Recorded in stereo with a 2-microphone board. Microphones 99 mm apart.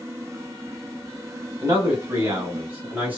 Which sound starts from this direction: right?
A man speaking, at 1.6 s.